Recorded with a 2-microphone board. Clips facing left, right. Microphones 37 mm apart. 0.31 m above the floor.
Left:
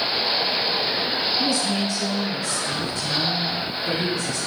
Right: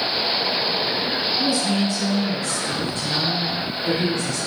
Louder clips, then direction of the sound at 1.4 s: Right 2 dB; 20° right (ahead or behind).